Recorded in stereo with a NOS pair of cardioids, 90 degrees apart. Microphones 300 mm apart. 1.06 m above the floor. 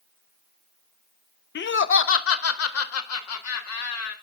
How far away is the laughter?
About 0.7 m.